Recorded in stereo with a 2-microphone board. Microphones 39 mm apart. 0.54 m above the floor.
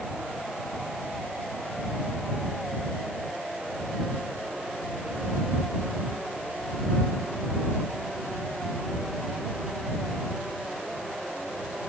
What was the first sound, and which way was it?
Only background noise.